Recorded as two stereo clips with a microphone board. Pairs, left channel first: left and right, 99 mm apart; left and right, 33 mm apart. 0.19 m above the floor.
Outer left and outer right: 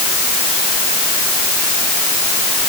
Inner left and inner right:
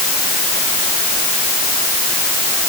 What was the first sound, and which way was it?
Only background noise.